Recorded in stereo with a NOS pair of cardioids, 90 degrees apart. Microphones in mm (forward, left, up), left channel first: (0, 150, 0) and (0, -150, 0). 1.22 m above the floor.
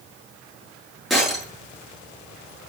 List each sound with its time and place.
1.1 s breaking glass: straight ahead, 8.5 m